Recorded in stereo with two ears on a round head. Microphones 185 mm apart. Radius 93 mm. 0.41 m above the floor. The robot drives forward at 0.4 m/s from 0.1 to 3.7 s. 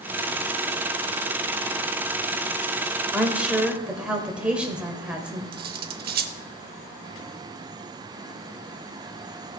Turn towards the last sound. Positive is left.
turn(degrees=-45)  # may be behind; listen again after turning